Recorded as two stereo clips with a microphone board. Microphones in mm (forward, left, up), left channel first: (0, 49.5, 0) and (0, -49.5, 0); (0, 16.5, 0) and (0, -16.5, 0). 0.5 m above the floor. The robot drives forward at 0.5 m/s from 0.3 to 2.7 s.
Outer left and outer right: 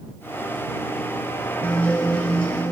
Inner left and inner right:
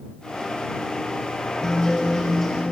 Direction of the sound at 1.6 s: 15° left (ahead or behind).